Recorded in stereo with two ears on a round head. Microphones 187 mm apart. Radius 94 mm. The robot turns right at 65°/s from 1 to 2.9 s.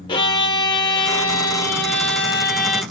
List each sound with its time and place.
0.1 s a violin: 25° left, 1.0 m; by 2.8 s 145° left, 1.0 m